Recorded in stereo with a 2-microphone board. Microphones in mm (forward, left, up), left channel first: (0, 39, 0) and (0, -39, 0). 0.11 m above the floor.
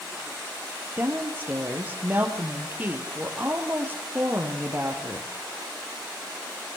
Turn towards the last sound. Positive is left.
turn(degrees=-25)  # may be behind; listen again after turning